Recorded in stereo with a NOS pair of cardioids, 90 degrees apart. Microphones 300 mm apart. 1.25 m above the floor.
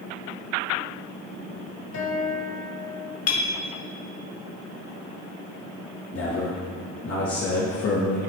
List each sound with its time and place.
1.9 s a guitar: 65° left, 1.5 m
3.3 s a clink: 55° left, 1.0 m
6.1 s a man speaking: 50° left, 1.6 m